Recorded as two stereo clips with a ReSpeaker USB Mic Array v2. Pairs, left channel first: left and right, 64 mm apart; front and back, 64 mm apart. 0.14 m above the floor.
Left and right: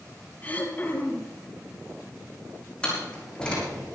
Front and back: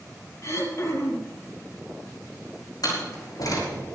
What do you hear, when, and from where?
0.4 s throat clearing: 30° left, 3 m
2.8 s a door slam: 15° left, 6.5 m